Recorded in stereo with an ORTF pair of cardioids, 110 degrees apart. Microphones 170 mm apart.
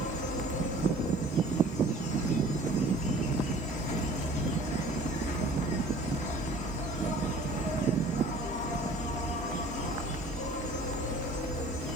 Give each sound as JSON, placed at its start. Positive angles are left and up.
{"t": 0.0, "sound": "an insect", "azimuth_deg": 45, "distance_m": 0.9}